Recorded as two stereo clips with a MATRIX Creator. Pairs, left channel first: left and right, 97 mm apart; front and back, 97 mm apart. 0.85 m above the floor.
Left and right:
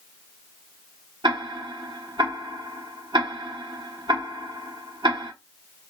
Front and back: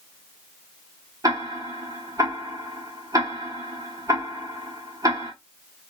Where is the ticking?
130° right, 1.1 m.